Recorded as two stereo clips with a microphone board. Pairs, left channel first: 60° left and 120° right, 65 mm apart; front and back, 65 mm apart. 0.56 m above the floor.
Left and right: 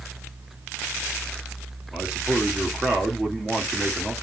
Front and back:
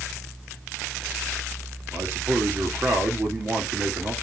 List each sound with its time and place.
1.9 s a man speaking: 170° left, 1.3 m